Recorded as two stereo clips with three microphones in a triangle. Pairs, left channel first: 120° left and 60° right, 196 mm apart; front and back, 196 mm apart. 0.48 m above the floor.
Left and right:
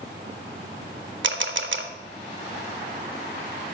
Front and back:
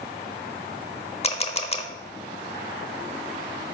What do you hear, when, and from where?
1.2 s a camera shutter: 55° right, 0.6 m